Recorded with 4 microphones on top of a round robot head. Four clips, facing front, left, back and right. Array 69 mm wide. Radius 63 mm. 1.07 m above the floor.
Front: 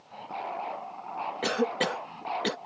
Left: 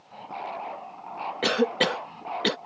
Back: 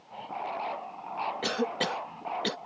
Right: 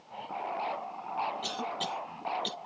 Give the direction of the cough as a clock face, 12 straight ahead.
9 o'clock.